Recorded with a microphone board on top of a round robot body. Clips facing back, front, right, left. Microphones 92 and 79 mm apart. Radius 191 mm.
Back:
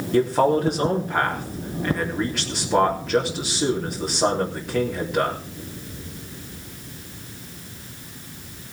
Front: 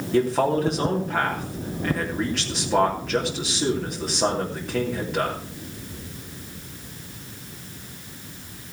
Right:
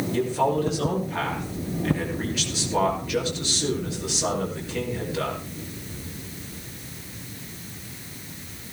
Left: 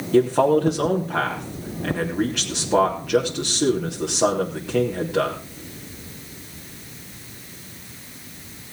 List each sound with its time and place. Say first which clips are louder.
0.1 s a man speaking: back 2 dB, left 8 dB; 95° left, 3.5 m